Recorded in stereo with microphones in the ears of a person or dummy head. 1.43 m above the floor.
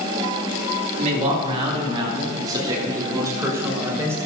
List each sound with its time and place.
1.0 s a man speaking: 40° right (ahead or behind), 3 m; by 4.2 s 15° right (ahead or behind), 5 m